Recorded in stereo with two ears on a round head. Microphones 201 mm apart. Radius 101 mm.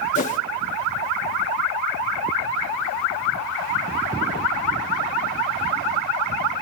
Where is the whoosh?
35° left (ahead or behind), 1.2 m.